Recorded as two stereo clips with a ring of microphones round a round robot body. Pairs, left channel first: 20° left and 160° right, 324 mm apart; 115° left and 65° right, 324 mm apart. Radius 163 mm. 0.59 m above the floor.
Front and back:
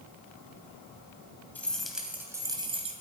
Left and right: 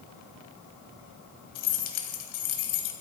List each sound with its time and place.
1.6 s keys jangling: 105° left, 2 m; by 2.9 s 130° left, 2 m